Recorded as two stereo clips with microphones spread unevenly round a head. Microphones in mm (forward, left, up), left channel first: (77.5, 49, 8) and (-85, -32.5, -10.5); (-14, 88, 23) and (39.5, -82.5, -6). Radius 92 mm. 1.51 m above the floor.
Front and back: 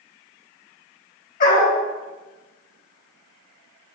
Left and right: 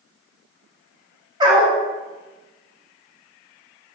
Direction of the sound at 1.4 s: 5° right.